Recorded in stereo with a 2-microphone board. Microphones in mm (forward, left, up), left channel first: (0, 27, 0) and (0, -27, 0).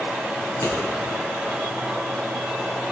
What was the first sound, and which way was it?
Scissors, 85° left.